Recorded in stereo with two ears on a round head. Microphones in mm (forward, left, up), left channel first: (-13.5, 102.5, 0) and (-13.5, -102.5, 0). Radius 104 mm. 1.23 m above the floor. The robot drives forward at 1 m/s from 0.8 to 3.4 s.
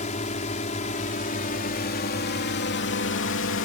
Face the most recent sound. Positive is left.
turn(degrees=55)  # may be behind; listen again after turning